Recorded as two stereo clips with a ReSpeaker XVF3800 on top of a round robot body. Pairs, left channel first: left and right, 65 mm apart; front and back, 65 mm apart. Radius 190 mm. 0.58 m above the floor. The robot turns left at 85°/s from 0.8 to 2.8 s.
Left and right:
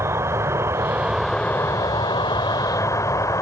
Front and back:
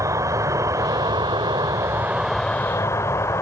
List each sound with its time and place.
0.0 s an insect: 140° right; by 3.4 s 50° left